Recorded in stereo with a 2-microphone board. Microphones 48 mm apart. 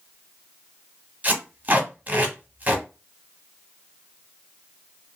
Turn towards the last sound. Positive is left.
turn(degrees=-30)  # may be behind; listen again after turning